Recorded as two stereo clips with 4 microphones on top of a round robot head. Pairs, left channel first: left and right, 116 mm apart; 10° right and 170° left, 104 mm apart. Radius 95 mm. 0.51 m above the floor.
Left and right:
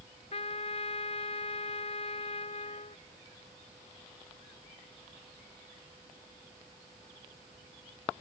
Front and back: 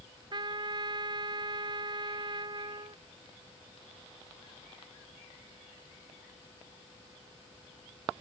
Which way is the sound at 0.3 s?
125° left.